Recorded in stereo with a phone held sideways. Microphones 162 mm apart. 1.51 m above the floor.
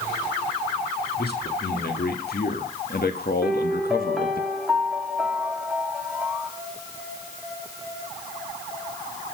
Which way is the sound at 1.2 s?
85° left.